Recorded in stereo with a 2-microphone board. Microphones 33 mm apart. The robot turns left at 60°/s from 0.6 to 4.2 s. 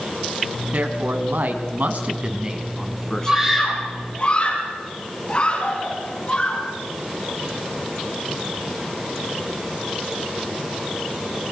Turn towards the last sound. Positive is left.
turn(degrees=30)  # may be behind; listen again after turning